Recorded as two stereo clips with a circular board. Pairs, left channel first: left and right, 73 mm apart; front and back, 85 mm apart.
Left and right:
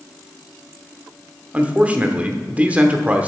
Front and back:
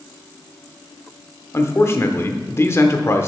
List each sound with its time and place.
1.5 s a man speaking: 35° right, 1.0 m